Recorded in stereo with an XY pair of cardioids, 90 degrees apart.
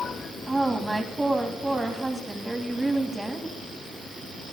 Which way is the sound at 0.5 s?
20° right.